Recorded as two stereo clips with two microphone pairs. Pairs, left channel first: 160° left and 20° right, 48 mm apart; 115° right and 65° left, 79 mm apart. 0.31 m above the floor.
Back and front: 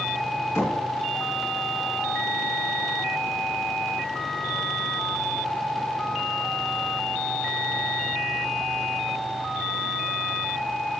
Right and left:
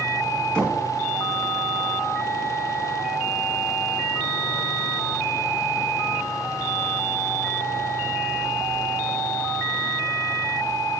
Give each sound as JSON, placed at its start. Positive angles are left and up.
{"t": 0.6, "sound": "knocking", "azimuth_deg": 165, "distance_m": 2.5}